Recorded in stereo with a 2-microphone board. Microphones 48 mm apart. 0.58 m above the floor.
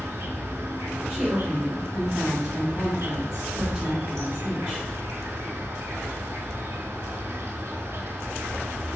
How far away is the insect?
About 0.8 m.